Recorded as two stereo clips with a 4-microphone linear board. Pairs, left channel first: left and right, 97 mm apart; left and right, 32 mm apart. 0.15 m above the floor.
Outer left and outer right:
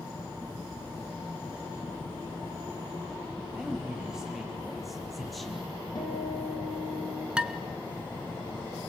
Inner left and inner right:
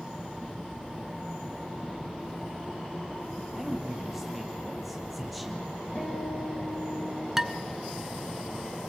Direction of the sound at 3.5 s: 5° right (ahead or behind).